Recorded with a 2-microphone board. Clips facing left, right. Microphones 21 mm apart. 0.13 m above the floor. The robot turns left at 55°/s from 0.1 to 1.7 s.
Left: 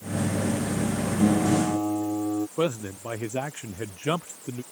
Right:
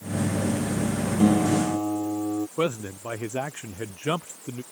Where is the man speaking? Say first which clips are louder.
Even; 30° right (ahead or behind).